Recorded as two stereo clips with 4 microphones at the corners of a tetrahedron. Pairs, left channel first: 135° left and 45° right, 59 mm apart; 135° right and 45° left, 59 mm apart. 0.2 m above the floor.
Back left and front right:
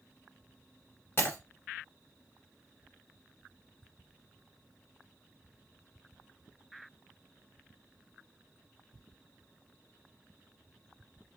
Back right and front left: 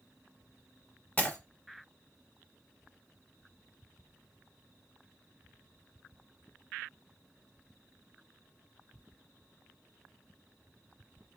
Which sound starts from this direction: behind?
Breaking glass, at 1.2 s.